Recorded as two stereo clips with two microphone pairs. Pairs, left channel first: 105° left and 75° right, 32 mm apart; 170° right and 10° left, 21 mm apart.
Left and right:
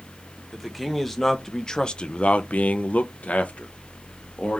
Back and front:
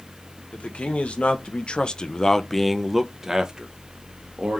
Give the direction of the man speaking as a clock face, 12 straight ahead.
6 o'clock.